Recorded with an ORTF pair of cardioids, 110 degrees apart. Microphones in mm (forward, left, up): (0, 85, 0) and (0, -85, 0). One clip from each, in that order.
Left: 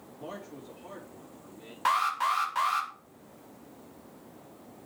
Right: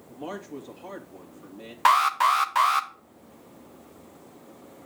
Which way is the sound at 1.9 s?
45° right.